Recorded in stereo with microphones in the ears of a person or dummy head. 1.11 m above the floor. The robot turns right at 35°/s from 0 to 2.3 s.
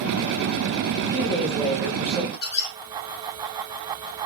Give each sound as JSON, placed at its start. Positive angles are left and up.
{"t": 1.0, "sound": "a woman speaking", "azimuth_deg": 165, "distance_m": 0.7}
{"t": 2.3, "sound": "a squeak", "side_deg": 65, "distance_m": 0.9}